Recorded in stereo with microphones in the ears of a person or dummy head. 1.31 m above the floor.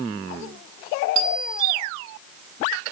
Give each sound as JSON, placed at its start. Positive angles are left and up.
{"t": 1.1, "sound": "a bicycle bell", "side_deg": 30, "distance_m": 8.0}